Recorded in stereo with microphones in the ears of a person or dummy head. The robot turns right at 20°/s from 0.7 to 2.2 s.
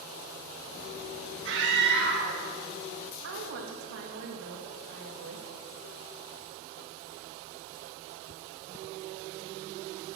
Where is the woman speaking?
75° right (ahead or behind), 2 m.